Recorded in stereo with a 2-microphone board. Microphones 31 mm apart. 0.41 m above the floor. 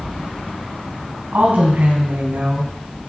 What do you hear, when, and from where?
1.3 s a woman speaking: 70° right (ahead or behind), 3 m